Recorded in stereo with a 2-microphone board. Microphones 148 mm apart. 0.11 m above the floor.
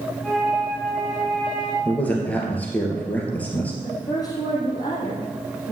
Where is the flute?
Centre (ahead or behind), 4 m.